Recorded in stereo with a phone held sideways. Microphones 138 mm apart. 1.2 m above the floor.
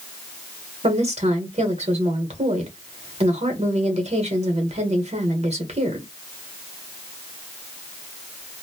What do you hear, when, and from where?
0.8 s a woman speaking: 50° right (ahead or behind), 1.0 m